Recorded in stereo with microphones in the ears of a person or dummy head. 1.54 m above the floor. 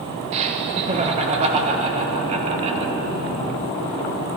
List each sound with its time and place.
0.3 s laughter: 35° right (ahead or behind), 1.6 m